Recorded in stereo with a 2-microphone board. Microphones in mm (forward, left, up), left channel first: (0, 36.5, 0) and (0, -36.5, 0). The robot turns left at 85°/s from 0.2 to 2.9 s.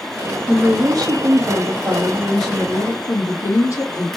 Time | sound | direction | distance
0.5 | a woman speaking | 15° right | 1.7 m